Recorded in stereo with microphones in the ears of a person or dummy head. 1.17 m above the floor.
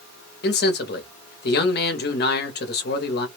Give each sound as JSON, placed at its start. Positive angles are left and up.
{"t": 0.4, "sound": "a man speaking", "side_deg": 50, "distance_m": 0.8}